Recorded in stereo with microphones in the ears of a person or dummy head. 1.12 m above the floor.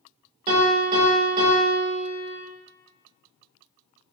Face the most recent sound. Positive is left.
turn(degrees=-40)  # may be behind; listen again after turning